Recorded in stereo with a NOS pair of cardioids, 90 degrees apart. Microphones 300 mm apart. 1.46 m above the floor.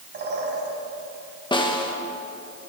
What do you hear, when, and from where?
0.1 s a bird: 35° right, 4.5 m
1.5 s a snare drum: 15° left, 2.0 m